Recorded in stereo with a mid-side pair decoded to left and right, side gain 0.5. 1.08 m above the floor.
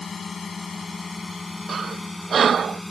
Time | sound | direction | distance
0.0 | a drone | 30° left | ?
1.7 | breathing | 45° right | ?